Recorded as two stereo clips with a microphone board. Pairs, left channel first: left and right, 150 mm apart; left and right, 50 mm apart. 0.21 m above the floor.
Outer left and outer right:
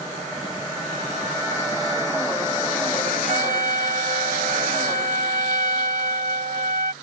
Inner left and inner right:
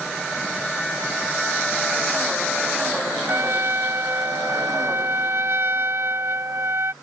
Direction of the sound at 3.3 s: 65° right (ahead or behind).